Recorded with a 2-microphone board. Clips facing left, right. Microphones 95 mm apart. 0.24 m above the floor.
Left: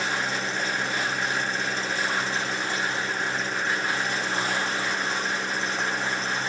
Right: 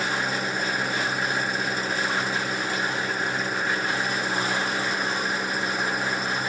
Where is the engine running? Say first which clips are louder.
Right 1 dB; 10° right (ahead or behind).